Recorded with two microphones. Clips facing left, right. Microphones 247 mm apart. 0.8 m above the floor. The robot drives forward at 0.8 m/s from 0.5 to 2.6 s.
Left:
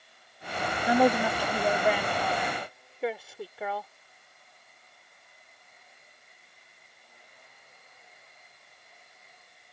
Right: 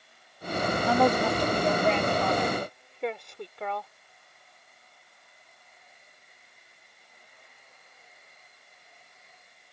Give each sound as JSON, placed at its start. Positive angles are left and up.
{"t": 0.9, "sound": "a woman speaking", "side_deg": 10}